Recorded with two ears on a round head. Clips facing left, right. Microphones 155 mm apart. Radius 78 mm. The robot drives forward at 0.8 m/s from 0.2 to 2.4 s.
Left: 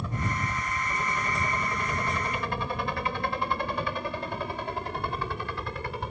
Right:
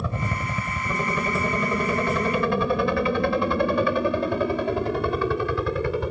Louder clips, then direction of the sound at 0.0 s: Right 3 dB; 65° right (ahead or behind).